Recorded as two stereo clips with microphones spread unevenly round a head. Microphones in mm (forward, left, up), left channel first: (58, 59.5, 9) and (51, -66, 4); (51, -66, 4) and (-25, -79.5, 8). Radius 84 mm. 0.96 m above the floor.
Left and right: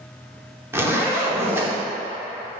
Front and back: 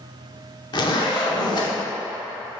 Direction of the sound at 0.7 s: 20° right.